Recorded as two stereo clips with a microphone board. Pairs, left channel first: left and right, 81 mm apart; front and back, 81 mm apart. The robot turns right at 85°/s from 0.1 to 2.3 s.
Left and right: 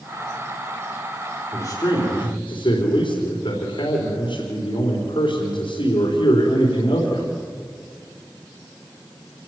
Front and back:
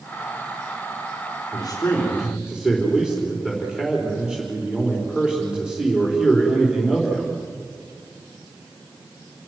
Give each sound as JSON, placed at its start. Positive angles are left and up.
{"t": 1.5, "sound": "a man speaking", "azimuth_deg": 30, "distance_m": 4.5}